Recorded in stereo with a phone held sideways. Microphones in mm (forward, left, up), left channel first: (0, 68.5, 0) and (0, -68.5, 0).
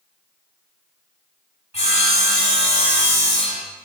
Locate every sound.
1.7 s sawing: 40° left (ahead or behind), 2.5 m